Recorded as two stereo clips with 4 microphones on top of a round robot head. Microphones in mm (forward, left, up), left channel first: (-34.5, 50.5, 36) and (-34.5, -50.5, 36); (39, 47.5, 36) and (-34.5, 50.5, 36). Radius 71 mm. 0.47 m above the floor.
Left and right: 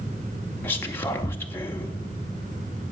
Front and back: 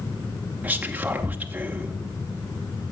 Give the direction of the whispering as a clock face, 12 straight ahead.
8 o'clock.